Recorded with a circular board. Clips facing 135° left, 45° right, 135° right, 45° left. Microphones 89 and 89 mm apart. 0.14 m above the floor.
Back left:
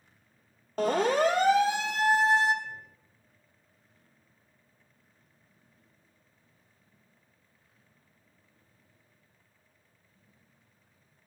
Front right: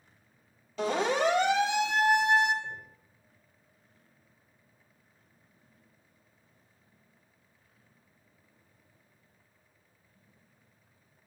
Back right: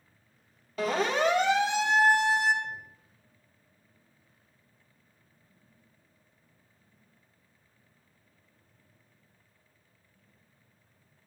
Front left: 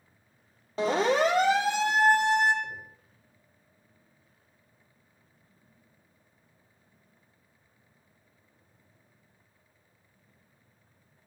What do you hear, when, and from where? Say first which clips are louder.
0.8 s a siren: back left 3 dB, front left 3 dB; 105° left, 3.5 m; by 2.5 s 80° left, 4.5 m
2.6 s knocking: front right 1 dB, back right 1 dB; 25° left, 4.5 m